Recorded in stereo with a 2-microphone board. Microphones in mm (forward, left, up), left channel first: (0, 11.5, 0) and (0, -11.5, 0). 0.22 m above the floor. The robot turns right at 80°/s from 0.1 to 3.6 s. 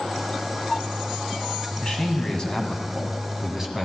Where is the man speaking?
65° left, 1.7 m; by 3.9 s 150° right, 1.7 m.